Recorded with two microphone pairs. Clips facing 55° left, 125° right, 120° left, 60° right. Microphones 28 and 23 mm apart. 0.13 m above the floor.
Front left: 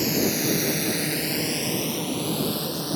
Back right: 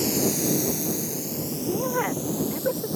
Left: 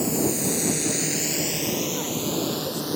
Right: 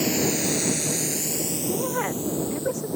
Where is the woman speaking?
105° right.